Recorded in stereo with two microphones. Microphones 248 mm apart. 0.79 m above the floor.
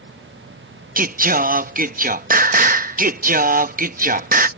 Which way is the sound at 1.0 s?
35° right (ahead or behind).